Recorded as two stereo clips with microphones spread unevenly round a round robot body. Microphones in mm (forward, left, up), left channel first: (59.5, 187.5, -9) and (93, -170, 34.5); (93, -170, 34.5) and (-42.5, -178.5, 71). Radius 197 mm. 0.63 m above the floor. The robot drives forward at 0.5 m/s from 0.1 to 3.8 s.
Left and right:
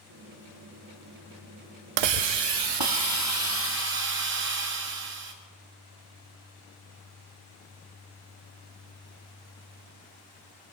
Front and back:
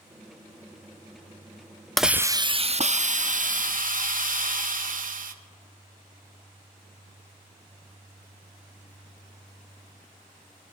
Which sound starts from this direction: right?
A hiss, at 2.0 s.